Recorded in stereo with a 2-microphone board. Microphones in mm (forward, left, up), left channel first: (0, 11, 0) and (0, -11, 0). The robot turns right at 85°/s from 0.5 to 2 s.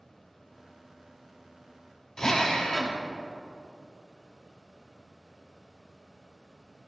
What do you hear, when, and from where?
2.2 s a drill: 25° left (ahead or behind), 1.3 m